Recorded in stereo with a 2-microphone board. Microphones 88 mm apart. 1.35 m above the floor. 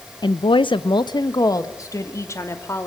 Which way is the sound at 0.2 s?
55° left (ahead or behind).